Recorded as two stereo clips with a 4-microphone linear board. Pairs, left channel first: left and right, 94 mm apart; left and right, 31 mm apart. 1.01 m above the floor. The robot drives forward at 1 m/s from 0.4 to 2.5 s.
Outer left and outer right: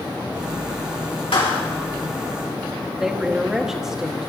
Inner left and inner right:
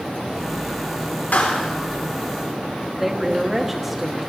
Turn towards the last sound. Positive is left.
turn(degrees=-5)  # may be behind; listen again after turning